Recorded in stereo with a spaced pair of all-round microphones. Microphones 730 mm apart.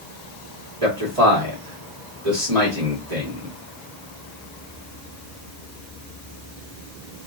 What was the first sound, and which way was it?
A man speaking, 45° right (ahead or behind).